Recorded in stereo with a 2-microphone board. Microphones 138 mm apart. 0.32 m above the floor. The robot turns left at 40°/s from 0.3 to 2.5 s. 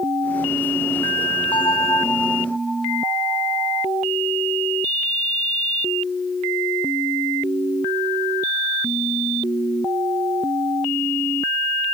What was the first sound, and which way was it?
A bell, 35° left.